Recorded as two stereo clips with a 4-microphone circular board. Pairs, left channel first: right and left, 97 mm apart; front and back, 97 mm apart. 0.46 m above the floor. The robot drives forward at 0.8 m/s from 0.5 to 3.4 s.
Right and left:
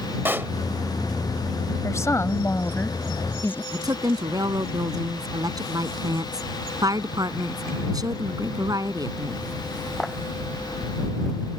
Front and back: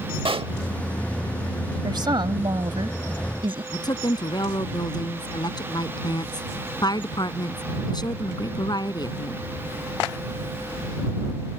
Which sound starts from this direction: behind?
A pop, at 0.2 s.